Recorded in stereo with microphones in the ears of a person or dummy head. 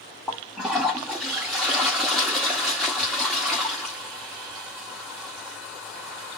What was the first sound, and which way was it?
A toilet flushing, 5° right (ahead or behind).